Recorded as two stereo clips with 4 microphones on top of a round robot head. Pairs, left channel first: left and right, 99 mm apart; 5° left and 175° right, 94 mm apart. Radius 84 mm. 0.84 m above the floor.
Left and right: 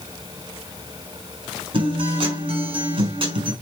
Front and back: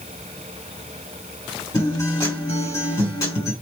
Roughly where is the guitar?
Ahead right.